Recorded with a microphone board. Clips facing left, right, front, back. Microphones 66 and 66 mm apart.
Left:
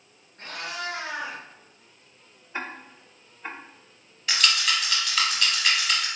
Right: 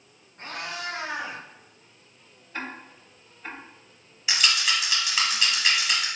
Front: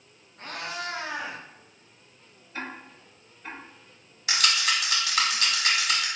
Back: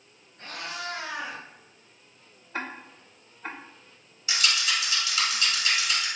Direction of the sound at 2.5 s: 160° left.